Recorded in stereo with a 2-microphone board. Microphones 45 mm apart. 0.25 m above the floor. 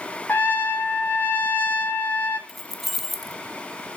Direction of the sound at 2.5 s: Centre (ahead or behind).